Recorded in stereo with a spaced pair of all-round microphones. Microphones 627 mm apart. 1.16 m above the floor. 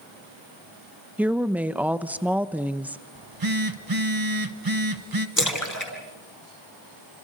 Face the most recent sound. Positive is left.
turn(degrees=30)  # may be behind; listen again after turning